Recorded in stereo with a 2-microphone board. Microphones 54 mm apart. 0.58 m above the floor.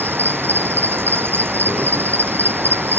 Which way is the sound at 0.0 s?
45° right (ahead or behind).